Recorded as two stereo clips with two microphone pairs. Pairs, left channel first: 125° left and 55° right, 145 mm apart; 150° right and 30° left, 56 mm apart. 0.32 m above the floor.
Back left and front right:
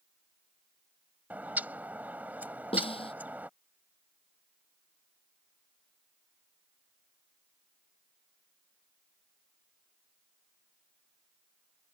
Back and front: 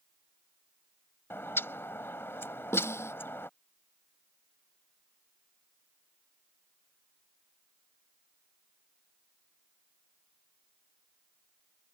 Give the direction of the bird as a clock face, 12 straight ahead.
4 o'clock.